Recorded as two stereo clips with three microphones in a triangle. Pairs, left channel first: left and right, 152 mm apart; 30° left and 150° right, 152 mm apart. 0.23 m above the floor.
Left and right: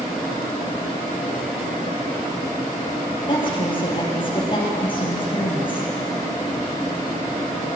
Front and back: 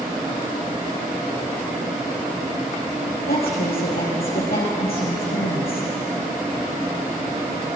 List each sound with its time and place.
3.3 s a woman speaking: 35° left, 7.5 m